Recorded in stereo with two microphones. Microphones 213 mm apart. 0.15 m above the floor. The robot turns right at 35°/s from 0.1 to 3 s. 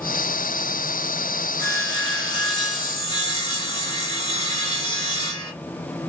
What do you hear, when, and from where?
1.6 s sawing: 20° left (ahead or behind), 1.4 m